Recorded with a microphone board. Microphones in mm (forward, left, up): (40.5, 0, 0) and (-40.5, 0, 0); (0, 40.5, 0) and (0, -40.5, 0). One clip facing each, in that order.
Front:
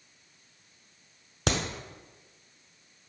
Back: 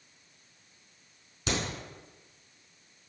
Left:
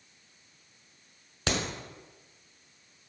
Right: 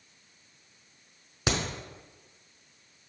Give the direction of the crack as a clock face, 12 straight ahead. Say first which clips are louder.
Front 3 dB, right 1 dB; 12 o'clock.